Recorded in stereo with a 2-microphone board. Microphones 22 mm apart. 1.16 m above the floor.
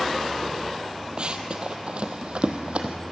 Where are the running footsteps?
45° right (ahead or behind), 1.6 m; by 3.0 s 55° right (ahead or behind), 2 m.